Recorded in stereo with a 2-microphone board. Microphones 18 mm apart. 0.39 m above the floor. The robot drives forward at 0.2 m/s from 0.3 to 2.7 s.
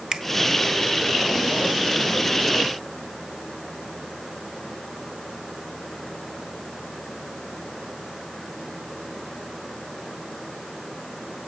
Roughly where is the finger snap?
Right.